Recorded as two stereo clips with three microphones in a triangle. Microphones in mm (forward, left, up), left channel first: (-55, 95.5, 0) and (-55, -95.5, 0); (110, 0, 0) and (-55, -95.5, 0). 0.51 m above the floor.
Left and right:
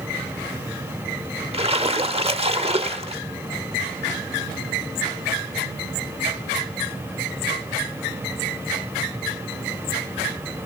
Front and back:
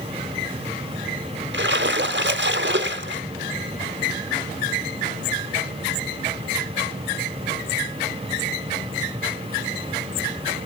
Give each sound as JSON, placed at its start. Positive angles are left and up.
{"t": 1.5, "sound": "a splash", "azimuth_deg": -150, "distance_m": 0.8}